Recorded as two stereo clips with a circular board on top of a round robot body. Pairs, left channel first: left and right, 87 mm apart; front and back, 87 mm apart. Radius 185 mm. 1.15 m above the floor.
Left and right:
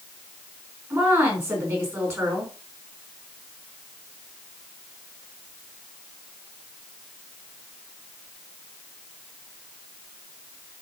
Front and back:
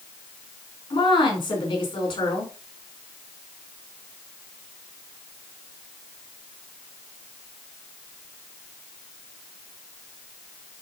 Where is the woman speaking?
30° right, 4.5 m.